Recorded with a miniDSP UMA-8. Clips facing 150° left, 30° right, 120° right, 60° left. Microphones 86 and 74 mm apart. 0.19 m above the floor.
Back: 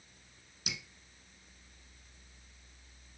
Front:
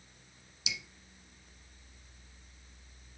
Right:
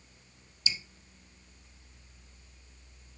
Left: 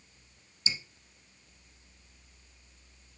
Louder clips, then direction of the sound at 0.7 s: Front 1 dB, left 1 dB; 115° left.